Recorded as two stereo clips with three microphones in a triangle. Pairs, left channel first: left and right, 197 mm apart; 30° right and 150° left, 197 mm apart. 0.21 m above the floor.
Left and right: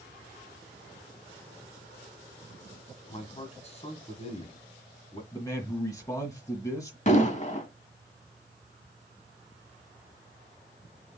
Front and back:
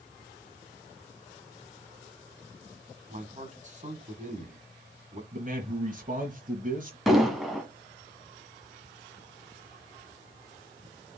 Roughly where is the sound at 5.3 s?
Behind left.